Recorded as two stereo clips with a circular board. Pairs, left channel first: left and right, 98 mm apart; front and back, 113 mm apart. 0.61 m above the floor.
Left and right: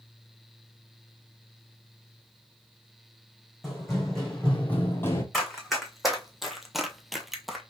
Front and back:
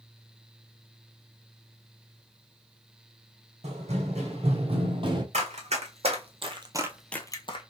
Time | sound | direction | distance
3.6 | running footsteps | straight behind | 1.9 m
5.3 | running footsteps | straight behind | 2.0 m